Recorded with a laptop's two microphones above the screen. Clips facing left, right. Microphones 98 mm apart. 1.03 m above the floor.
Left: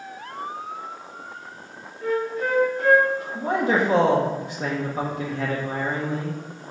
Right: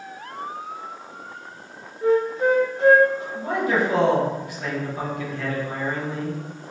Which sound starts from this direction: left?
A man speaking, at 3.4 s.